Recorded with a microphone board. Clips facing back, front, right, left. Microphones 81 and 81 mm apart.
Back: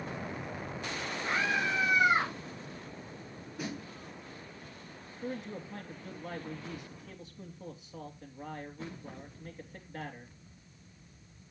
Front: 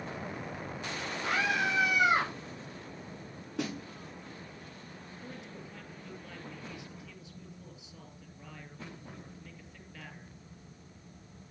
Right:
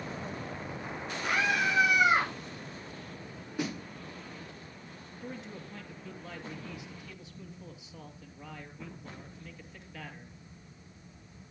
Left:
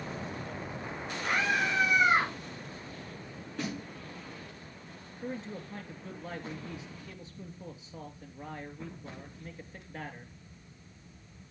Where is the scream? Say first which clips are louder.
Front 1 dB, right 1 dB; 5° right, 6 m; by 2.3 s 15° right, 7.5 m.